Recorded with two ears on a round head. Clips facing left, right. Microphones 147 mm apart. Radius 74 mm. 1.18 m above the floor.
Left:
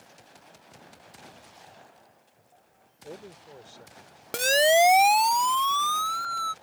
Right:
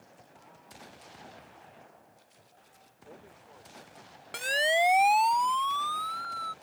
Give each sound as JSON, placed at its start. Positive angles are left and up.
{"t": 3.0, "sound": "a man speaking", "side_deg": 45}
{"t": 4.3, "sound": "a siren", "side_deg": 50}